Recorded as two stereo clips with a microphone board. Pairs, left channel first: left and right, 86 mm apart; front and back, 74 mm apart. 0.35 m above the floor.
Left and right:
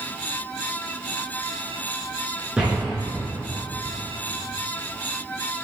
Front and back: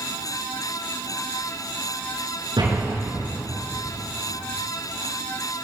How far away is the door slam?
About 4.5 m.